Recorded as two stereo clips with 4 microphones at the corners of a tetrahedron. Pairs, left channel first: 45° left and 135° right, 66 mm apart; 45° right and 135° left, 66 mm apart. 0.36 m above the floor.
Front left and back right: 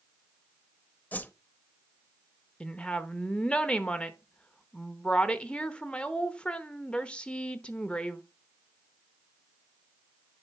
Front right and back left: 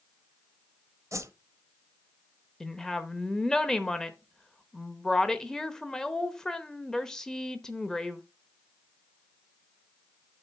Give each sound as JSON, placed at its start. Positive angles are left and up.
{"t": 1.1, "sound": "a whoosh", "azimuth_deg": 105, "distance_m": 0.5}
{"t": 2.6, "sound": "a woman speaking", "azimuth_deg": 15, "distance_m": 0.8}